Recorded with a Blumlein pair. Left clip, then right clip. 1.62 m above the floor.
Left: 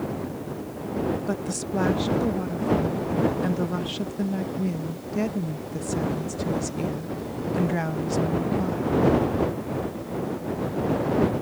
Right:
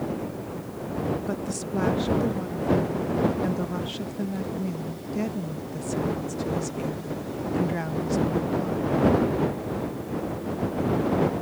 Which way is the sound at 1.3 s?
10° left.